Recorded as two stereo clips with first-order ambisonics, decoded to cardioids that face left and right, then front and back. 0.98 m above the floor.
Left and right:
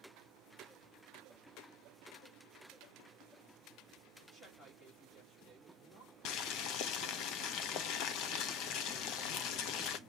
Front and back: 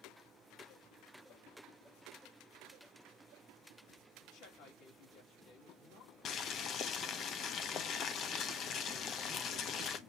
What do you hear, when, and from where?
4.2 s a woman speaking: 15° left, 2.5 m
6.2 s boiling: 55° left, 0.7 m